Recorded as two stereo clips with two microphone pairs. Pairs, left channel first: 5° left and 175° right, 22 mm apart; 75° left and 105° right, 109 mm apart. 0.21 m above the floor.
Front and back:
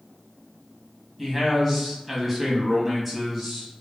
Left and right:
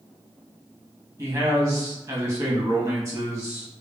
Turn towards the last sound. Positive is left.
turn(degrees=-100)